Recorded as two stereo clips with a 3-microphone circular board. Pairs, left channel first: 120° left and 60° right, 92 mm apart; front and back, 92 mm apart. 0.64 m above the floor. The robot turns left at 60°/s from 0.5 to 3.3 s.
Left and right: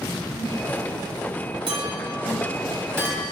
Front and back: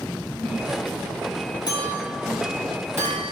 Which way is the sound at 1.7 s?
40° right.